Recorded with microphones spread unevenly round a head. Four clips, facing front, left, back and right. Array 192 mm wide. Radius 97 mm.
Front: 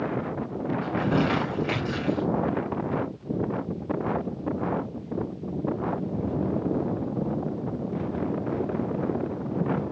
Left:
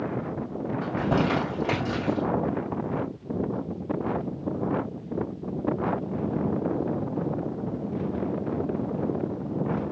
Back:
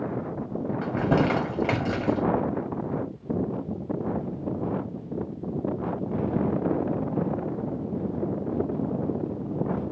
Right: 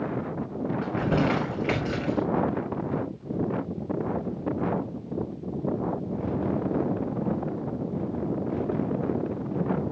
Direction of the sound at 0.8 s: 160° left.